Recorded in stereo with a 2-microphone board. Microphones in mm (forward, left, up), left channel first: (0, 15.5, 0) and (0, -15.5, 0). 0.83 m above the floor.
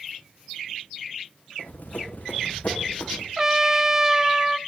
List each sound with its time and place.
1.6 s running footsteps: 55° left (ahead or behind), 3.5 m; by 3.3 s 60° left (ahead or behind), 3 m
3.4 s a trumpet: 15° right (ahead or behind), 0.5 m